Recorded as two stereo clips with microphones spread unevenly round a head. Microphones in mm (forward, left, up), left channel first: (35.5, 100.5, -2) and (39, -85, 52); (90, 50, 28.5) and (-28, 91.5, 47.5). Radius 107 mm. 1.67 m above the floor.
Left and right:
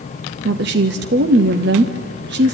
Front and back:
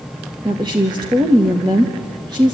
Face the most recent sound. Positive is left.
turn(degrees=-130)